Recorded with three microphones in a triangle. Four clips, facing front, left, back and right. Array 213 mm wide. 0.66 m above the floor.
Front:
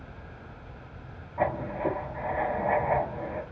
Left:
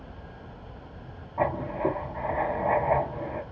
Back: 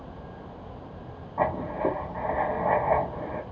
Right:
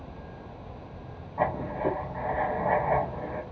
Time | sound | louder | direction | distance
1.4 | writing | left 1 dB, back 2 dB | 165° left | 1.1 m